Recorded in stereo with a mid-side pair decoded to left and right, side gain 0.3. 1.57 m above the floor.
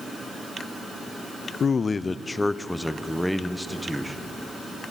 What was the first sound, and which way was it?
A man speaking, 65° left.